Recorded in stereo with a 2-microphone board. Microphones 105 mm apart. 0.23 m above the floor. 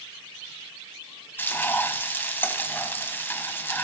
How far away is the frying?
About 1.3 m.